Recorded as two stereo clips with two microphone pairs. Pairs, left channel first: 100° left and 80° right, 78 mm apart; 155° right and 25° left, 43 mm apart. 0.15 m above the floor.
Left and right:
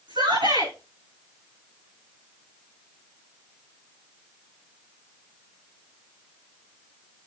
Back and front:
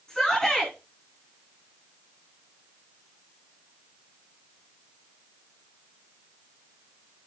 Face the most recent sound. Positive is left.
turn(degrees=-80)